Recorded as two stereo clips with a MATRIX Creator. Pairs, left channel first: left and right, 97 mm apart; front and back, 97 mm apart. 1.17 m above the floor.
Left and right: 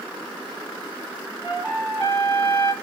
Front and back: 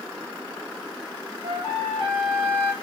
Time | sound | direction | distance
1.4 | a trumpet | 150° left | 3.5 m